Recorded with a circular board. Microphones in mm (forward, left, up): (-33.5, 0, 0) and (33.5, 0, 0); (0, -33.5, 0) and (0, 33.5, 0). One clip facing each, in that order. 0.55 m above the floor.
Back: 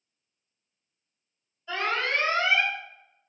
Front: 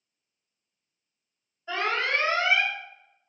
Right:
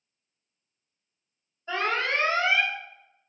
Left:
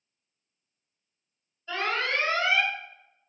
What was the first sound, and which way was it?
An alarm, 55° right.